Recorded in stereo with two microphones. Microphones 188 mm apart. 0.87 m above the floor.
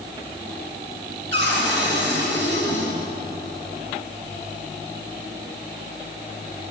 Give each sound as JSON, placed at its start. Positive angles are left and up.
{"t": 1.3, "sound": "a cupboard door", "side_deg": -75, "distance_m": 3.0}